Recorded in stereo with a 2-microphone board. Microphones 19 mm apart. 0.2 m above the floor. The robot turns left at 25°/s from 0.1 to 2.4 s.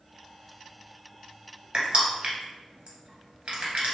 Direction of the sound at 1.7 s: 45° right (ahead or behind).